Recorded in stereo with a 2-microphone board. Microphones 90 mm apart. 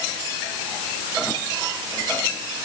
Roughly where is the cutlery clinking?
No cutlery clinking in this recording.